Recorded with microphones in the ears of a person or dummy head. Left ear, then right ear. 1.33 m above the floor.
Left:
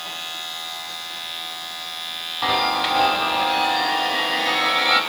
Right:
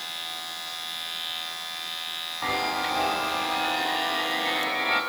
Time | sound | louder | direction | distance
2.4 | a chime | left 7 dB | 30° left (ahead or behind) | 2 m